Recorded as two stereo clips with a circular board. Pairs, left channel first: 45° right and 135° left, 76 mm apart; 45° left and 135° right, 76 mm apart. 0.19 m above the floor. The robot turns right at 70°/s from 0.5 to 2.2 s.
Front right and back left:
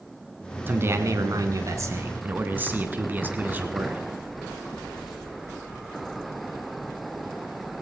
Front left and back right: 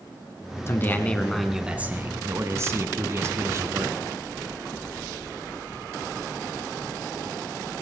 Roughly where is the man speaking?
Left.